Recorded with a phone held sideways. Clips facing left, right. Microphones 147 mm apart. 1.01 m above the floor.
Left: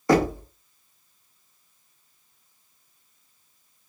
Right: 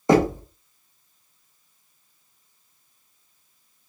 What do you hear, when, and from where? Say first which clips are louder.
0.1 s knocking: right 2 dB; 20° right (ahead or behind), 0.9 m